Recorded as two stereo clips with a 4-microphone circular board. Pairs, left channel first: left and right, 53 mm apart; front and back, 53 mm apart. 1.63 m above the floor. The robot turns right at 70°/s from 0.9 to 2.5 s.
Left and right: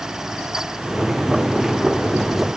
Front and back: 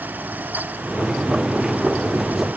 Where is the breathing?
I don't hear breathing.